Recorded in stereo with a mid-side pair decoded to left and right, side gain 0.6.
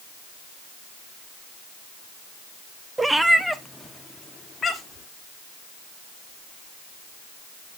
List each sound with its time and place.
3.0 s a cat meowing: 15° right, 0.8 m; by 5.1 s 30° left, 1.9 m